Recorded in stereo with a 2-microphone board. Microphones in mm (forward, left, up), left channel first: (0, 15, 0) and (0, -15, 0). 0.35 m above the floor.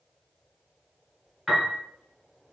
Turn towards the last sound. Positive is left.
turn(degrees=5)  # may be behind; listen again after turning